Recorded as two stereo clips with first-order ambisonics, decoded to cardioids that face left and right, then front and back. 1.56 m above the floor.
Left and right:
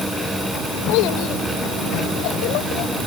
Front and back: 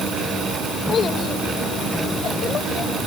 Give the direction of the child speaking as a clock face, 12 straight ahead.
10 o'clock.